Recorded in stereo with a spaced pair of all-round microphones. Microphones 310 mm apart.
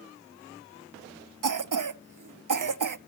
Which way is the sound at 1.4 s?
80° right.